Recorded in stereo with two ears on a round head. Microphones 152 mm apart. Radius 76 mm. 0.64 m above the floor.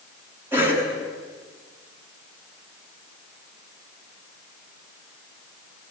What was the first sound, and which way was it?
A cough, 15° right (ahead or behind).